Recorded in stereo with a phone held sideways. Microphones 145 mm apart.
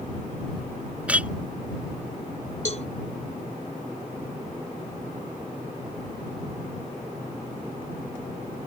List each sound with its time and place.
1.1 s a clink: 10° right (ahead or behind)
2.6 s a cowbell: 50° left (ahead or behind)